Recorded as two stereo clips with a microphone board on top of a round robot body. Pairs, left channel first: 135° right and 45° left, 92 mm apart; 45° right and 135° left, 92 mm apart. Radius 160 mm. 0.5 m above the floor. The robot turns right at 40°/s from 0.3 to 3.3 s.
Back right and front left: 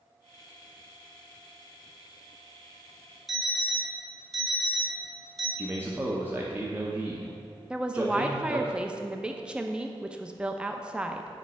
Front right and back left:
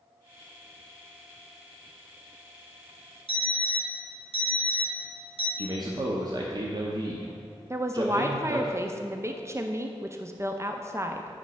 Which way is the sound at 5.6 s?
110° left.